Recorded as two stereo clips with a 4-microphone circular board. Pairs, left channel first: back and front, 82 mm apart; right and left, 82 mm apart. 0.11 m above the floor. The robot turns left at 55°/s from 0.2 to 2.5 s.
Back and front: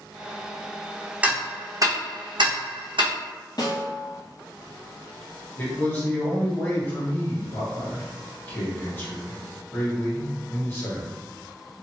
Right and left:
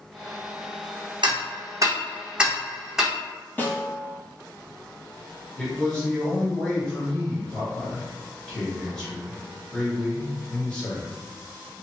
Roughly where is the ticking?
Left.